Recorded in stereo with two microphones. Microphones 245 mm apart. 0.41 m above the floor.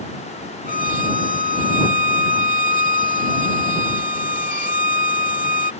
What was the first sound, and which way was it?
A violin, 30° right (ahead or behind).